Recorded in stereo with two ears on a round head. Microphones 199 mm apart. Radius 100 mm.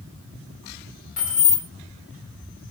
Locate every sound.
1.2 s keys jangling: 35° left (ahead or behind), 1.2 m